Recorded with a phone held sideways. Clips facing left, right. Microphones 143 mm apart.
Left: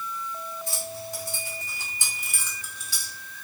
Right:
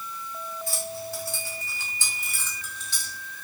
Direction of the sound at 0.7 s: 20° left (ahead or behind).